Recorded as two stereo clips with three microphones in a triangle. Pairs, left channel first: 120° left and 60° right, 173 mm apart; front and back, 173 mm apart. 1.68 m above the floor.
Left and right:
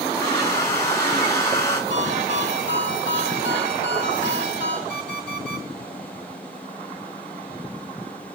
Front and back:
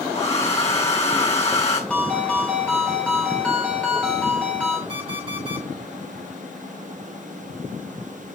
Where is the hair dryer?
50° left, 3.5 m.